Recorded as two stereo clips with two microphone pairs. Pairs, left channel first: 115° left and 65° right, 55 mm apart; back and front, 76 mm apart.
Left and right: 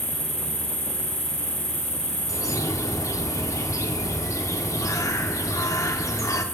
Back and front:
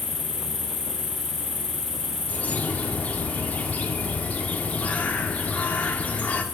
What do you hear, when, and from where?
0.0 s an insect: 15° right, 4 m
2.3 s a bird: 110° left, 0.5 m